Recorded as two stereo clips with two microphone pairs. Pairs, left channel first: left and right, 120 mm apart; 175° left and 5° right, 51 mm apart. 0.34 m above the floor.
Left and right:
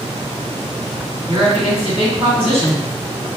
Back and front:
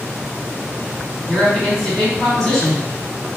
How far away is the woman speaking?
About 1.8 m.